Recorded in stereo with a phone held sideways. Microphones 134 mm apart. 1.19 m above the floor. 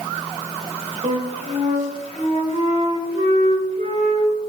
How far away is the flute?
About 2.5 m.